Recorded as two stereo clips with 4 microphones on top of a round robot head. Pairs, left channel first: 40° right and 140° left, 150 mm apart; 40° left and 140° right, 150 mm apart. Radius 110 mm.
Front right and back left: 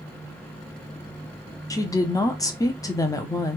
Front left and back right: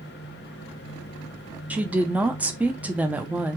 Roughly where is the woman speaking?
Right.